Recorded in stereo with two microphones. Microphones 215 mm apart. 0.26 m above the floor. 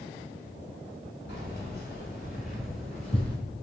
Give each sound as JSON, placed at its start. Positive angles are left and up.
{"t": 1.3, "sound": "keys jangling", "side_deg": 60, "distance_m": 1.8}